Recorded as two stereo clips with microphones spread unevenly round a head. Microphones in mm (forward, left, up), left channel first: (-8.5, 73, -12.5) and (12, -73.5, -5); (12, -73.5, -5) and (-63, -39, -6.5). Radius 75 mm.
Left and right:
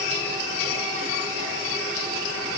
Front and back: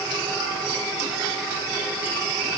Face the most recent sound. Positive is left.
No sound to turn to.